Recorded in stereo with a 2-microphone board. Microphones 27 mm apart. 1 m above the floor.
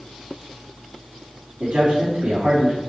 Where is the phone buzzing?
No phone buzzing in this recording.